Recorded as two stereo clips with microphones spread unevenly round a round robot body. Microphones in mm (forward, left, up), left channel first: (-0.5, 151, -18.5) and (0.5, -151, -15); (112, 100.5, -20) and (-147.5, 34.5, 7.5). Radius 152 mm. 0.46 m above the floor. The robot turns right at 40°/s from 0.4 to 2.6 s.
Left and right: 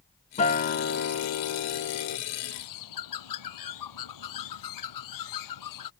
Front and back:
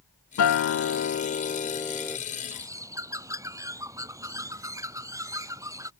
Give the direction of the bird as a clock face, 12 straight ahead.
8 o'clock.